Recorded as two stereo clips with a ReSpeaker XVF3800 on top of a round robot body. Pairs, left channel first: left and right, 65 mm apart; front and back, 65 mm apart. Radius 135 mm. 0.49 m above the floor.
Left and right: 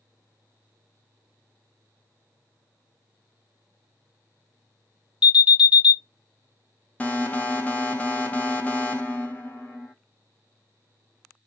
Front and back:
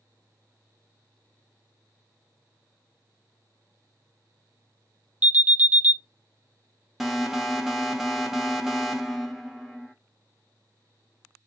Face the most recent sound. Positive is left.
turn(degrees=105)